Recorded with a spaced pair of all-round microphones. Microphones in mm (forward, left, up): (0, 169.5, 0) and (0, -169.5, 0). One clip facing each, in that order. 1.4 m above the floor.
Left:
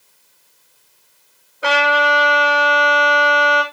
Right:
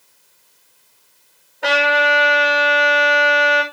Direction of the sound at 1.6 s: 5° left (ahead or behind).